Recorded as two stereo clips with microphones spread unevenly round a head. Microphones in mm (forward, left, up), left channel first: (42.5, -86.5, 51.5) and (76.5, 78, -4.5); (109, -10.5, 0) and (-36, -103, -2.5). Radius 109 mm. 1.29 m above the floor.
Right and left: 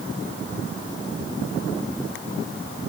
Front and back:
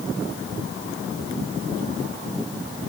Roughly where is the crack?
I don't hear a crack.